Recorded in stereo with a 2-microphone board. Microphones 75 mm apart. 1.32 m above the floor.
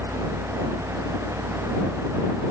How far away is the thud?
No thud in this recording.